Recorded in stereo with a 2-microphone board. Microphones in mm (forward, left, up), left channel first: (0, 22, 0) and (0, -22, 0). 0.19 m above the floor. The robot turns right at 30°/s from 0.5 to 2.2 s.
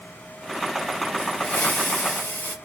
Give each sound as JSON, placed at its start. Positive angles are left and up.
{"t": 1.2, "sound": "a hiss", "azimuth_deg": 40, "distance_m": 1.3}